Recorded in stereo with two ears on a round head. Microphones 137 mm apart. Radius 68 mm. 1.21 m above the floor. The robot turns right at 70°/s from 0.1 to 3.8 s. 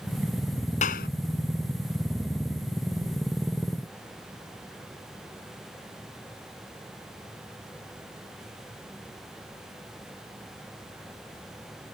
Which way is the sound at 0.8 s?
50° left (ahead or behind).